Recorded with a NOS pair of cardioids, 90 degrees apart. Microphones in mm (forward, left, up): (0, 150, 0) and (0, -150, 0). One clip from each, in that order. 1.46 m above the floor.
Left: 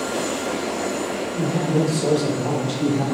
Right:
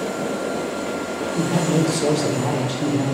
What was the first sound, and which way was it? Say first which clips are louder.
A man speaking: right 2 dB; 45° right.